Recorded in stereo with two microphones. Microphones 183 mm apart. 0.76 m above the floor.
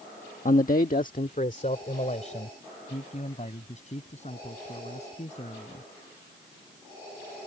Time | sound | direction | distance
0.5 | a man speaking | 45° left (ahead or behind) | ?